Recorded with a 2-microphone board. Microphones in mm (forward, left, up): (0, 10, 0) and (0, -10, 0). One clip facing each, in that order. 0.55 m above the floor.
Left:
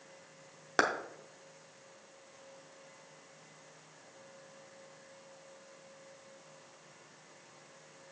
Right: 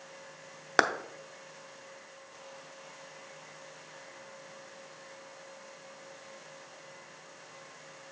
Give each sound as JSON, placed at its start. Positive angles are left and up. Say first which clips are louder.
{"t": 0.8, "sound": "a clap", "louder": "right 4 dB", "side_deg": -25, "distance_m": 0.6}